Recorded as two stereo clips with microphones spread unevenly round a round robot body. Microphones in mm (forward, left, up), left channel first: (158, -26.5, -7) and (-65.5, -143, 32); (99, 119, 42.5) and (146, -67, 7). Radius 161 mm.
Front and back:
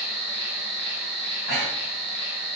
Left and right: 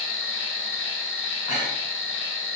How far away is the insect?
About 1.1 m.